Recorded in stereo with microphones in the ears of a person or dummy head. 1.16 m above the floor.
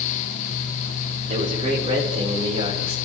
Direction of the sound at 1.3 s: 35° right (ahead or behind).